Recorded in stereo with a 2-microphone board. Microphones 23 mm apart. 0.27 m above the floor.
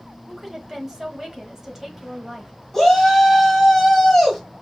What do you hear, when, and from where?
0.3 s a woman speaking: 20° right (ahead or behind), 1.3 m
2.7 s a shout: 15° left (ahead or behind), 1.7 m